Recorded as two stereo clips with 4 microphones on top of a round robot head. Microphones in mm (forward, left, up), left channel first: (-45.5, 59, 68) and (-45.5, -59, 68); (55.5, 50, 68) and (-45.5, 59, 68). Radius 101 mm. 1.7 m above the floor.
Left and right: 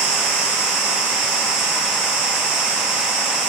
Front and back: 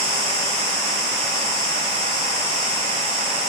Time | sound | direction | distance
0.0 | an insect | 75° right | 1.5 m